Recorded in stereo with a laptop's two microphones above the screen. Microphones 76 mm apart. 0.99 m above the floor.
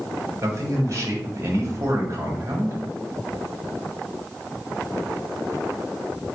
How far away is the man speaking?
About 1.2 m.